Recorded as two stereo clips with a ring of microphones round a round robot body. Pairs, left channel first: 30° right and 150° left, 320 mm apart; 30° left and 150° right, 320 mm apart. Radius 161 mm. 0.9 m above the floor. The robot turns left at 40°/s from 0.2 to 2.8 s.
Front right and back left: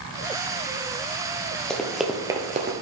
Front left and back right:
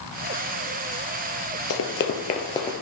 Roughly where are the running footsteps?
Ahead left.